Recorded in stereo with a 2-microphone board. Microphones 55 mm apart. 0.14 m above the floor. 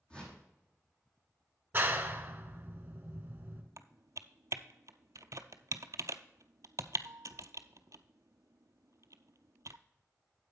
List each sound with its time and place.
0.1 s a whoosh: 20° left (ahead or behind), 3.5 m
1.7 s a clap: 35° right (ahead or behind), 1.2 m
3.8 s typing on a keyboard: 75° right (ahead or behind), 0.5 m